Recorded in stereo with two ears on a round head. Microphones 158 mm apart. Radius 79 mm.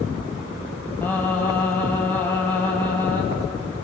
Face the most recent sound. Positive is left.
turn(degrees=10)  # may be behind; listen again after turning